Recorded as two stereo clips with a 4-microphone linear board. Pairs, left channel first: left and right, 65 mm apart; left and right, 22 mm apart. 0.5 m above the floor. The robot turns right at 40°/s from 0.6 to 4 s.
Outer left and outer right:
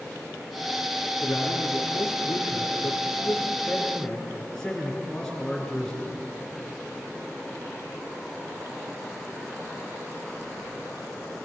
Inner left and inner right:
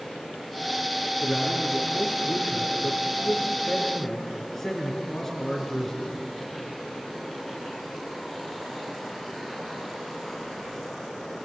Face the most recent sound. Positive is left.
turn(degrees=170)